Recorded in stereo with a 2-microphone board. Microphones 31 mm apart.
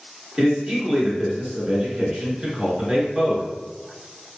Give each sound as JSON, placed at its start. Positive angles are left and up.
{"t": 0.4, "sound": "a man speaking", "side_deg": -20, "distance_m": 1.1}